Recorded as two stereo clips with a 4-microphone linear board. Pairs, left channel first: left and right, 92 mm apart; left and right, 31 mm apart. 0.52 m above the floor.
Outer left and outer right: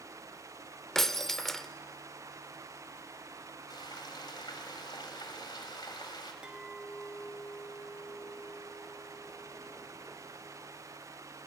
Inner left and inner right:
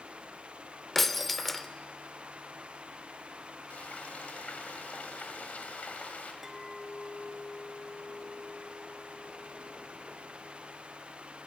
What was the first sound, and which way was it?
Breaking glass, 5° left (ahead or behind).